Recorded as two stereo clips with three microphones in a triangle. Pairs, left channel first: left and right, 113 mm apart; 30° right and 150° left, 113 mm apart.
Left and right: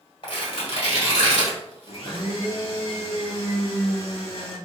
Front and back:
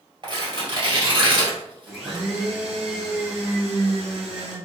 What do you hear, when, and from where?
0.2 s tearing paper: 110° left, 1.8 m
1.9 s a blender: 65° left, 1.6 m